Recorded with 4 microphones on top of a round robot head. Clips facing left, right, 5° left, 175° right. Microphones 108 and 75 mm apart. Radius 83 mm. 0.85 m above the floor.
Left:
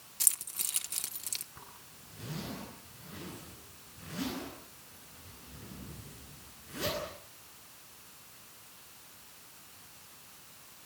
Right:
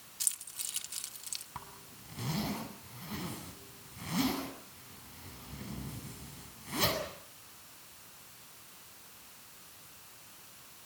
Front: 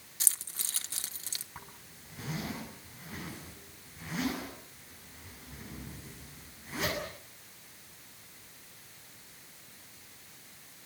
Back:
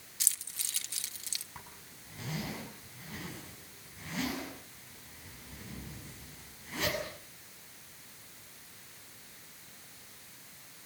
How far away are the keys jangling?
About 1.6 m.